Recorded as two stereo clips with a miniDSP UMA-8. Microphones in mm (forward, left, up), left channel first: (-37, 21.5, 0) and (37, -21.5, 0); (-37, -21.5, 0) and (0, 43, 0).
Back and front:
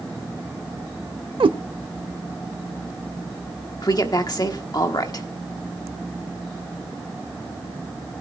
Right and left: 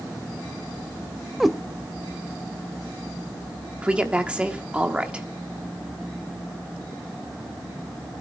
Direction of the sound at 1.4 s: 30° right.